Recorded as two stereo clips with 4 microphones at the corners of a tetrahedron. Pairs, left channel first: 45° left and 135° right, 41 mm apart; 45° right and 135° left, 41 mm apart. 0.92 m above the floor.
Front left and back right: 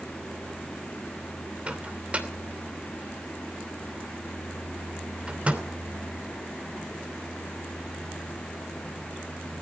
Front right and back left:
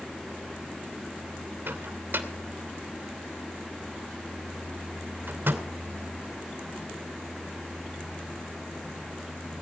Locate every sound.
1.7 s a microwave: 165° left, 2.5 m